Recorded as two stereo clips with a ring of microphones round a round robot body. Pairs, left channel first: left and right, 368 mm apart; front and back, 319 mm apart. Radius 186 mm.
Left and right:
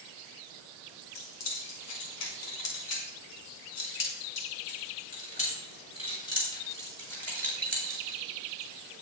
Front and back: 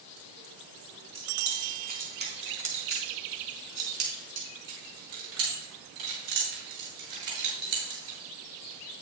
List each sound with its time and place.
1.1 s keys jangling: 110° left, 4.5 m; by 8.2 s straight behind, 7.5 m